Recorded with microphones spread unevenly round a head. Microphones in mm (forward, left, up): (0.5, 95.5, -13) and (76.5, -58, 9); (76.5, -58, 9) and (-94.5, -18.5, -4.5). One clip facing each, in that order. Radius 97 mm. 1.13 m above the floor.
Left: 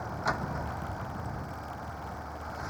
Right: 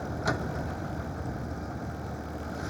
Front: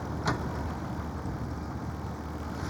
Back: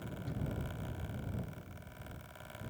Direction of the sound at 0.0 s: 10° right.